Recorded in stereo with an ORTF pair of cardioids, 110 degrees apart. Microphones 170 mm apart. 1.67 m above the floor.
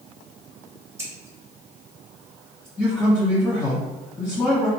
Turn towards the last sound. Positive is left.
turn(degrees=10)